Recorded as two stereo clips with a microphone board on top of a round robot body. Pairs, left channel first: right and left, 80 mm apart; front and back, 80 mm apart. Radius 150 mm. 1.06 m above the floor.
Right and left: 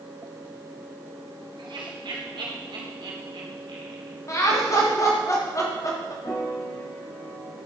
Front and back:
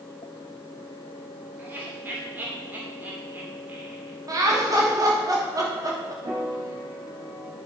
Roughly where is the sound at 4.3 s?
Behind right.